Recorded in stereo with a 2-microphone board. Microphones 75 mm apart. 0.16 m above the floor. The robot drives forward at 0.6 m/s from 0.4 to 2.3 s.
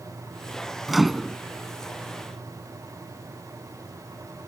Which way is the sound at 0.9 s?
Centre (ahead or behind).